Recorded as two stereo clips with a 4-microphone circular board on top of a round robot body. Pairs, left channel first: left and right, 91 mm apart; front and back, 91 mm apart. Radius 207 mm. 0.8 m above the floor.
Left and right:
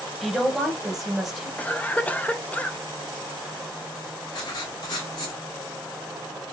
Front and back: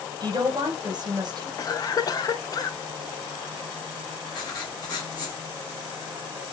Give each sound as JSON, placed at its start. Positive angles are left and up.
{"t": 0.2, "sound": "a woman speaking", "azimuth_deg": 180, "distance_m": 1.3}
{"t": 1.6, "sound": "a cough", "azimuth_deg": 20, "distance_m": 0.8}
{"t": 4.3, "sound": "writing", "azimuth_deg": 45, "distance_m": 0.6}